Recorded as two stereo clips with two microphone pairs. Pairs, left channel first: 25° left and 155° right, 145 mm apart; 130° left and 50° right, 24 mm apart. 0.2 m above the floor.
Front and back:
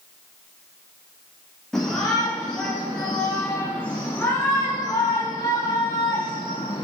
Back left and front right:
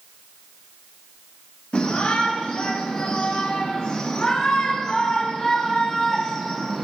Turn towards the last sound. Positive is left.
turn(degrees=30)